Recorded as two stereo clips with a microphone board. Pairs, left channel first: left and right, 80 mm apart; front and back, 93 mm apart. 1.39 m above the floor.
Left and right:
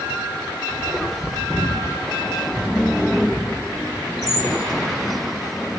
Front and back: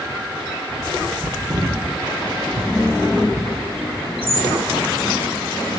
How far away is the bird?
About 5 m.